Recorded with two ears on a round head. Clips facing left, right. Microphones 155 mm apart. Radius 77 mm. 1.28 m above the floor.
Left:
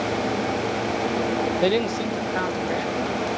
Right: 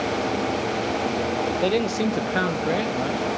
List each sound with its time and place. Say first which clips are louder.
1.6 s a man speaking: right 1 dB; 20° left (ahead or behind), 0.7 m; by 3.2 s 60° right (ahead or behind), 2 m